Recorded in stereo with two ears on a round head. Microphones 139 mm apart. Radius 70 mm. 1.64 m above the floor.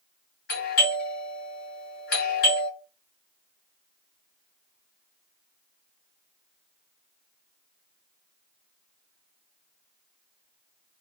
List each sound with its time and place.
0.5 s a doorbell: 65° left (ahead or behind), 2.5 m